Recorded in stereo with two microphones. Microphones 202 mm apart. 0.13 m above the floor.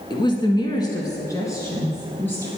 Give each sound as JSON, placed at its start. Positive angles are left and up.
{"t": 0.1, "sound": "a woman speaking", "side_deg": 25, "distance_m": 1.2}